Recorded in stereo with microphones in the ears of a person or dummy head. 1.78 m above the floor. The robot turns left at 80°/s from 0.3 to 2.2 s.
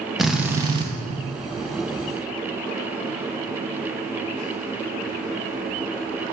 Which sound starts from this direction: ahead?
A drill, at 0.2 s.